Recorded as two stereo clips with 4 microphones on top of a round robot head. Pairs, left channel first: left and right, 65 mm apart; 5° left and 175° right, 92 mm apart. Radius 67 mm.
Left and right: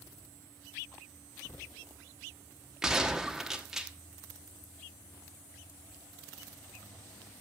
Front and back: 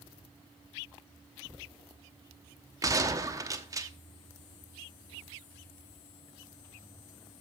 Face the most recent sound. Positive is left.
turn(degrees=-170)